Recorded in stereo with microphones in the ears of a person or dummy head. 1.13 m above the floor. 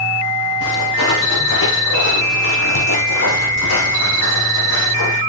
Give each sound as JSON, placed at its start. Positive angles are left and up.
{"t": 0.6, "sound": "footsteps", "side_deg": 70, "distance_m": 4.0}